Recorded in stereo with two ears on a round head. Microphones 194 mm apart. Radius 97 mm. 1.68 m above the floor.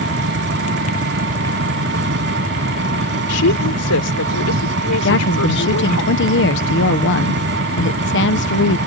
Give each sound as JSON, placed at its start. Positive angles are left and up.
{"t": 0.0, "sound": "an engine running", "side_deg": -55}
{"t": 3.3, "sound": "a woman speaking", "side_deg": 80}
{"t": 5.0, "sound": "a woman speaking", "side_deg": 60}